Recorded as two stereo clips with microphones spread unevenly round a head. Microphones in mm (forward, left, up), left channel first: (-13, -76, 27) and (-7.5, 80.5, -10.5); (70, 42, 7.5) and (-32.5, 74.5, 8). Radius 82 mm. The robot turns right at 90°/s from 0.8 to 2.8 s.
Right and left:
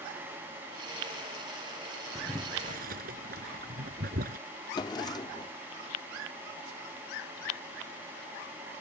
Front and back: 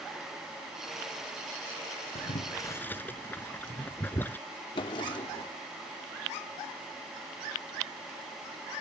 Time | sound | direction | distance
2.1 | boiling | 5° right | ?
4.8 | a drawer | 55° right | ?